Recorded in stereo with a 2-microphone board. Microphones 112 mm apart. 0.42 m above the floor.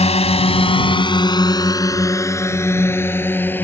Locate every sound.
0.0 s a drone: 70° left (ahead or behind); by 3.6 s 15° left (ahead or behind)